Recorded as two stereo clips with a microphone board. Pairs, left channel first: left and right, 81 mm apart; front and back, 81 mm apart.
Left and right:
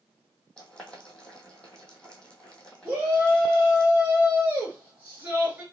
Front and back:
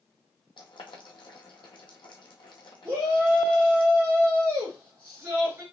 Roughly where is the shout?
Behind right.